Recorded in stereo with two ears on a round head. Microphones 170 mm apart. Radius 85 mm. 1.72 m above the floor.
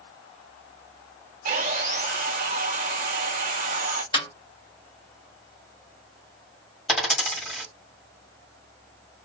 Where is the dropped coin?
Centre (ahead or behind), 1.7 m.